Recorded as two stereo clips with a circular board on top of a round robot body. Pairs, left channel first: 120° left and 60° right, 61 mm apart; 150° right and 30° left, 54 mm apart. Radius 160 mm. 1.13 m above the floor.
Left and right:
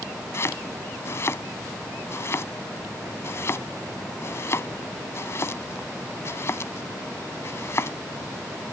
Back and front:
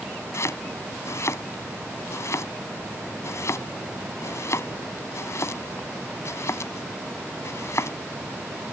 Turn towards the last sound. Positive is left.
turn(degrees=170)